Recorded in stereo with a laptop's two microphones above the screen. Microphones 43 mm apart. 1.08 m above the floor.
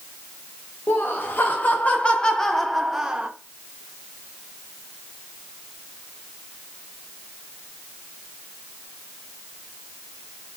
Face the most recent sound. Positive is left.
turn(degrees=-25)  # may be behind; listen again after turning